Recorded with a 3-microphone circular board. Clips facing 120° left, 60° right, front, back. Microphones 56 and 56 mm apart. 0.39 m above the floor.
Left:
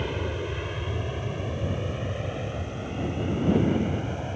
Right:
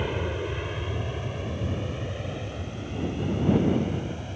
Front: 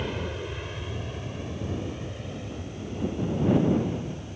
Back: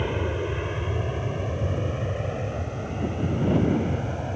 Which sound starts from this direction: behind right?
An aircraft, at 0.0 s.